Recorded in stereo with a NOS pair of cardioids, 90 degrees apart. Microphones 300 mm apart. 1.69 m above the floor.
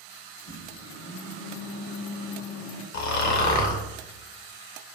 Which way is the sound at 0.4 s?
60° left.